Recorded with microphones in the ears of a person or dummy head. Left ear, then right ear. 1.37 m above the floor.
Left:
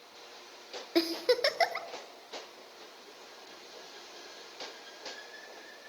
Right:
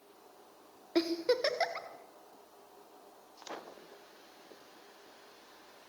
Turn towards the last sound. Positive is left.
turn(degrees=15)  # may be behind; listen again after turning